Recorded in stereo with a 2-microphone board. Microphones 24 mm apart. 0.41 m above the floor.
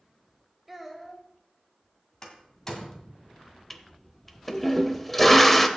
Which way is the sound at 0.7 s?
5° right (ahead or behind).